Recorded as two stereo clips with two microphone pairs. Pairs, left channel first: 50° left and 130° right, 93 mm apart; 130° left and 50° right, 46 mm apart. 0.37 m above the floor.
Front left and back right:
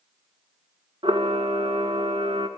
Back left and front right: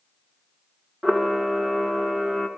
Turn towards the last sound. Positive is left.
turn(degrees=-130)